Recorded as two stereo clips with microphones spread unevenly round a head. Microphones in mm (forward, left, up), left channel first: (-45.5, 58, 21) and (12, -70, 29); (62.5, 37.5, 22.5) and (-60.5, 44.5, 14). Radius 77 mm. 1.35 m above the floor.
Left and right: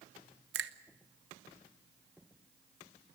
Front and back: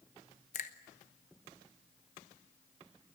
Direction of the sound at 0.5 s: 50° right.